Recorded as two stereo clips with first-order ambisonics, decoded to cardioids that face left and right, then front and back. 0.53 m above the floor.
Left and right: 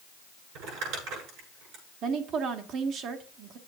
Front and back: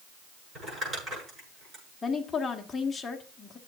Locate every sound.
0.6 s crumpling: 110° right, 8.5 m
2.0 s a woman speaking: 70° right, 1.3 m